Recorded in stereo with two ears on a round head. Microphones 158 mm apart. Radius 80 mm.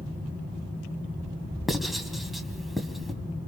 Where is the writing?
Centre (ahead or behind), 1.7 m.